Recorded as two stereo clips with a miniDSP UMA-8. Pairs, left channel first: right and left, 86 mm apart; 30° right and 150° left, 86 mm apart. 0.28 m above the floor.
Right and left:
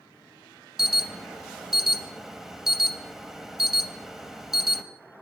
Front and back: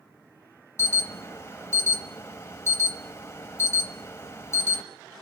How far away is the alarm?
About 0.8 m.